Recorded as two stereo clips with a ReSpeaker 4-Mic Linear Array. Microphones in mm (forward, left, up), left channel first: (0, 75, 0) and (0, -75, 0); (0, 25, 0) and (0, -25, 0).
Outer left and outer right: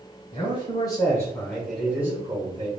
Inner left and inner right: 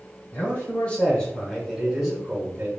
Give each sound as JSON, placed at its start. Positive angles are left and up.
{"t": 0.3, "sound": "a man speaking", "side_deg": 35, "distance_m": 1.1}